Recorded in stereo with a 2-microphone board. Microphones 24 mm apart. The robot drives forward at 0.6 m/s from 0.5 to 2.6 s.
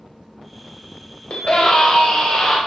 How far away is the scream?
About 1.4 m.